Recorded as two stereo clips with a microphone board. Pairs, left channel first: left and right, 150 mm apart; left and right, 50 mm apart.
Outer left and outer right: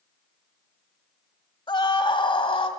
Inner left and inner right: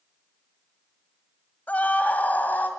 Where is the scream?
30° left (ahead or behind), 1.7 m; by 2.7 s 35° left (ahead or behind), 2 m.